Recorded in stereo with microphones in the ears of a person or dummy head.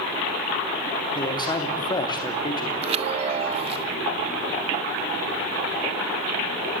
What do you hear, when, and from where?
1.1 s a man speaking: 20° left (ahead or behind), 2.5 m
2.8 s a chime: 30° right (ahead or behind), 0.6 m